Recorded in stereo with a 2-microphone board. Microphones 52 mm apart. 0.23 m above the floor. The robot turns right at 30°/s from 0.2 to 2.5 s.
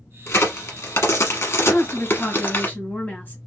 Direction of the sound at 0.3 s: 55° left (ahead or behind).